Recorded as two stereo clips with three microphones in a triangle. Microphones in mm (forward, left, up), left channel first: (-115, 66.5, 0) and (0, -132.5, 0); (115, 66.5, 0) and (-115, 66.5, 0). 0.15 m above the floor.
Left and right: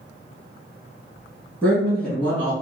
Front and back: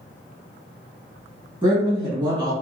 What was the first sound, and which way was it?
A woman speaking, 165° right.